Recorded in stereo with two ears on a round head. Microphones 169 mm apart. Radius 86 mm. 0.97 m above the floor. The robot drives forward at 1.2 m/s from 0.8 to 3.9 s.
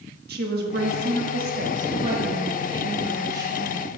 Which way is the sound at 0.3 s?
55° right (ahead or behind).